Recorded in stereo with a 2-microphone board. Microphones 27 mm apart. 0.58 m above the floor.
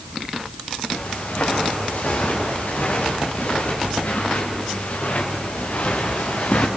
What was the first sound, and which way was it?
Footsteps, 70° left (ahead or behind).